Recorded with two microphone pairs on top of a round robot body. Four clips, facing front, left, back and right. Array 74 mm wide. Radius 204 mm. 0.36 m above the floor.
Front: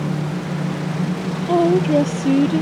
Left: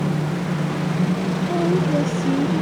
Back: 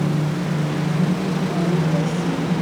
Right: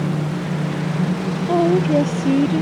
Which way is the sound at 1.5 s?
40° right.